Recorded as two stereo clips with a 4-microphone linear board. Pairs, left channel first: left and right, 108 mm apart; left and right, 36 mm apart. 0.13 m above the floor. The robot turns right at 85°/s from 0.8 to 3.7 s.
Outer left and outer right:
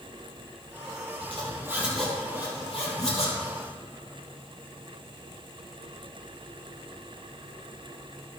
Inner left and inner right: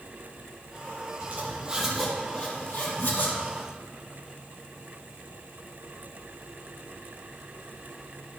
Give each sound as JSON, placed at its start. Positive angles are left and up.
{"t": 1.2, "sound": "a zipper", "side_deg": -55, "distance_m": 3.5}